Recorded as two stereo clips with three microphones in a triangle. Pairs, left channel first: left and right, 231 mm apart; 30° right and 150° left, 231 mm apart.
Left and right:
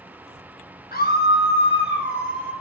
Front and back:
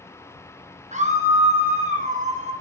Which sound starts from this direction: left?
A scream, at 0.9 s.